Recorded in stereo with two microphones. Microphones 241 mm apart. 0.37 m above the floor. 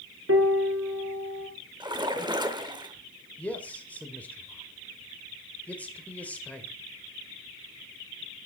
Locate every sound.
0.3 s a piano: 70° right (ahead or behind), 1.5 m
1.8 s a splash: 20° right (ahead or behind), 0.9 m
3.4 s a man speaking: 5° left (ahead or behind), 1.2 m